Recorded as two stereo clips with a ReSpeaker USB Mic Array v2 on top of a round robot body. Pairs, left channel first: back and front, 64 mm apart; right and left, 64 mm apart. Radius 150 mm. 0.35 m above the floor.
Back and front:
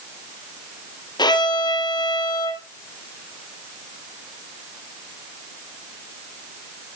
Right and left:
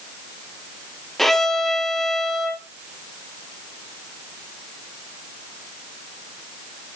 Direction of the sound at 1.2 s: 175° right.